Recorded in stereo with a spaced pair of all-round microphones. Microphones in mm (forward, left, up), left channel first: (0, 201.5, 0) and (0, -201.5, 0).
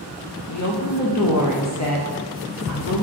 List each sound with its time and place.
0.5 s a woman speaking: 45° left (ahead or behind), 0.5 m